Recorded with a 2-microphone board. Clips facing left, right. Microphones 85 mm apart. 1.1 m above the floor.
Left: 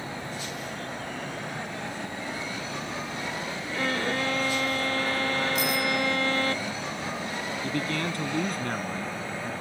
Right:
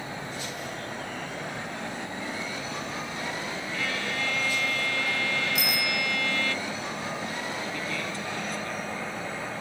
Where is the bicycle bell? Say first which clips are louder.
Left 3 dB; 75° right (ahead or behind).